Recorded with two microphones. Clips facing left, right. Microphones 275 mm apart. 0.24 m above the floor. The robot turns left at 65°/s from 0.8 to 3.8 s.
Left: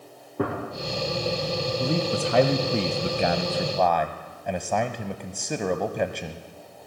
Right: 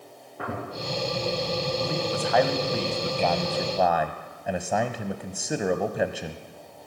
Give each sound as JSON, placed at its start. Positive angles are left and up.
{"t": 0.4, "sound": "a gunshot", "side_deg": 55, "distance_m": 7.5}
{"t": 1.8, "sound": "a man speaking", "azimuth_deg": 120, "distance_m": 1.1}